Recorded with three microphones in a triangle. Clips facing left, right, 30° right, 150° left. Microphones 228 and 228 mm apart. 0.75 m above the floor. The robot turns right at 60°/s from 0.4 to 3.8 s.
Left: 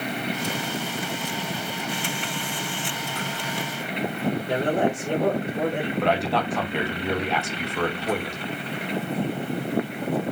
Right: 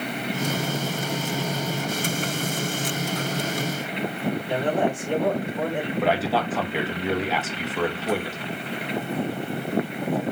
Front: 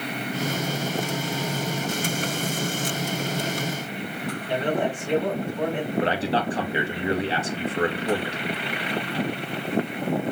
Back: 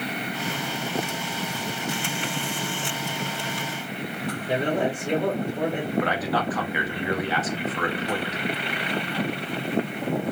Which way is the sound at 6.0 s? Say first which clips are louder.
Right 1 dB, front 4 dB; 5° right.